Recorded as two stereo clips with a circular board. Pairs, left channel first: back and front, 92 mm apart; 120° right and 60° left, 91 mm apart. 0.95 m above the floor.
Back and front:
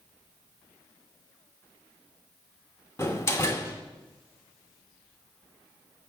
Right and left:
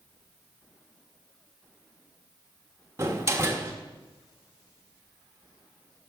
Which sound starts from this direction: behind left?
A door slam, at 3.0 s.